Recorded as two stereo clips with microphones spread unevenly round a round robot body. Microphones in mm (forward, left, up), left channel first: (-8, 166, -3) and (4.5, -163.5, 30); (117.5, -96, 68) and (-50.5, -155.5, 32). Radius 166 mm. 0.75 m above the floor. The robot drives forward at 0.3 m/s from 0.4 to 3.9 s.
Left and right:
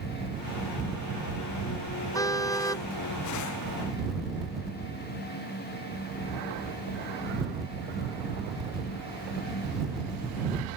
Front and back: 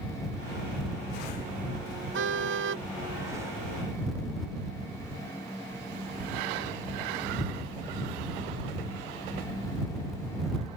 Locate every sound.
2.1 s a car horn: 175° left